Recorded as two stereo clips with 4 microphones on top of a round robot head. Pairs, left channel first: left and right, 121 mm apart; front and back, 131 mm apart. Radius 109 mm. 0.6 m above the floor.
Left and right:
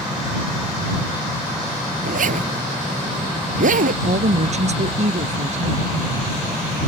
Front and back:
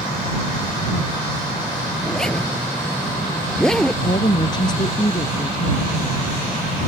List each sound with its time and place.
2.0 s a zipper: 85° right
4.0 s a woman speaking: 65° right